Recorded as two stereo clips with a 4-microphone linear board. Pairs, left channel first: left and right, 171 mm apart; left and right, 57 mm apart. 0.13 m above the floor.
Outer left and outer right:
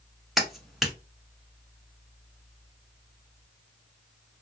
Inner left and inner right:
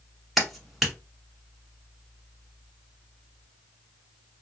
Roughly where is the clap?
Centre.